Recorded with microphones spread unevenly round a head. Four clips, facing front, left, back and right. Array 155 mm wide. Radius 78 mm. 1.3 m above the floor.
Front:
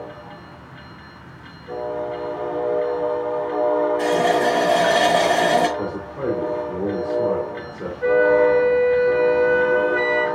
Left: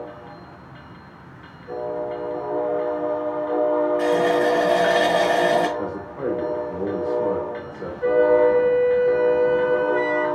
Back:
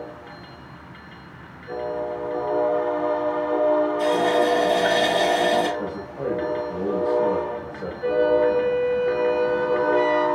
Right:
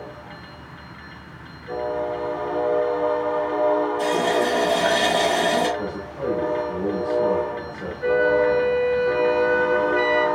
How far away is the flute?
About 1.2 m.